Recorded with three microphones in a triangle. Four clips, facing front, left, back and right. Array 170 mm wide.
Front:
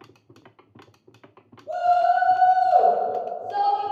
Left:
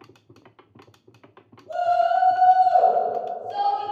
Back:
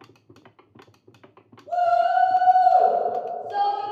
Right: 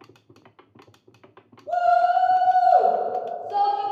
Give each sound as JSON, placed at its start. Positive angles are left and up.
{"t": 1.7, "sound": "a shout", "azimuth_deg": -60, "distance_m": 1.6}